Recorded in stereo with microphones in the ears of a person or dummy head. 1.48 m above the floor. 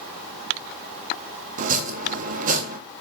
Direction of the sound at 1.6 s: 50° right (ahead or behind).